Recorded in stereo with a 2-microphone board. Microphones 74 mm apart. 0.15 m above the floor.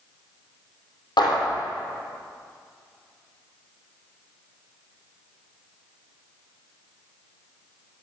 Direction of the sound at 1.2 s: 75° left (ahead or behind).